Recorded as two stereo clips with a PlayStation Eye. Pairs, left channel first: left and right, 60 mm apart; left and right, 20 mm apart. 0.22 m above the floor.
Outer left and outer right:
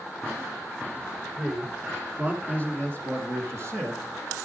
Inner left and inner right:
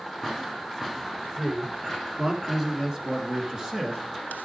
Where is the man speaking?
20° right (ahead or behind), 3 m; by 4.0 s 50° right (ahead or behind), 3 m.